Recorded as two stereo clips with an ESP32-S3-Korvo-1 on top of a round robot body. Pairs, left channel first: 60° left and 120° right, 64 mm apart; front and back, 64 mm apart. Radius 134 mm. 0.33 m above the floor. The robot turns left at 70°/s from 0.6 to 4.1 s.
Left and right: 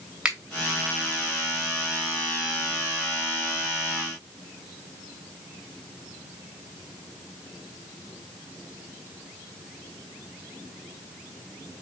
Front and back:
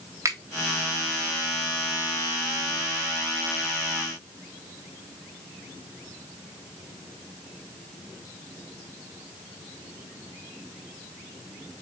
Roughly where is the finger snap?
Behind.